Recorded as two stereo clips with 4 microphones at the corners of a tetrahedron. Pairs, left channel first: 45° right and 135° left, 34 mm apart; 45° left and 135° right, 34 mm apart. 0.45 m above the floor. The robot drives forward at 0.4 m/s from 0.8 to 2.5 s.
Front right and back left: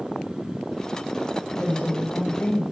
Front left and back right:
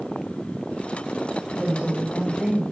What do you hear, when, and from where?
1.6 s a woman speaking: 60° right, 3 m; by 2.6 s 70° right, 3 m